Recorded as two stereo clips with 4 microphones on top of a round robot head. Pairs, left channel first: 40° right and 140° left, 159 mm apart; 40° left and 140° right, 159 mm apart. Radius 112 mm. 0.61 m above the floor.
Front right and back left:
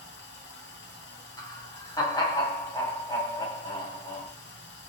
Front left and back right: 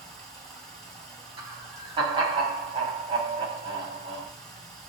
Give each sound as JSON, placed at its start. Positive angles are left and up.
{"t": 0.0, "sound": "running water", "azimuth_deg": -45, "distance_m": 1.0}
{"t": 1.4, "sound": "laughter", "azimuth_deg": -95, "distance_m": 1.6}